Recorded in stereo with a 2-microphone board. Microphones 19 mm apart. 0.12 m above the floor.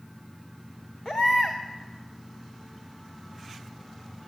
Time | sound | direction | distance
1.1 | a baby crying | 45° left (ahead or behind) | 3.5 m